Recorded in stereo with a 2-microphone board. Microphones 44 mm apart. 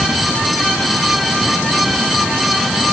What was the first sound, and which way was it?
Only background noise.